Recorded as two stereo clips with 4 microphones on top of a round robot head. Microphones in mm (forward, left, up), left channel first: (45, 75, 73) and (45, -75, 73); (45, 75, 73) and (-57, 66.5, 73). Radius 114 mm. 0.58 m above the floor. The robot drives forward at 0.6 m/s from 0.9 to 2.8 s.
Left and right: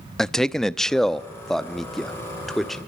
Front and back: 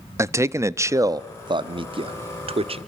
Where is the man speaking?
175° left, 0.7 m; by 2.8 s straight behind, 1.6 m.